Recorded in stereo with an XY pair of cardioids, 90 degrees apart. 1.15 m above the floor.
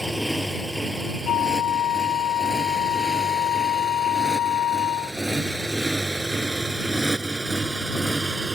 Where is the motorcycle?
Straight ahead; by 8.6 s 20° right.